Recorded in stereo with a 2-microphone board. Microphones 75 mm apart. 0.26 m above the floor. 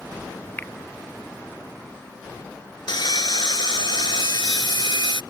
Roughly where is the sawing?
Left.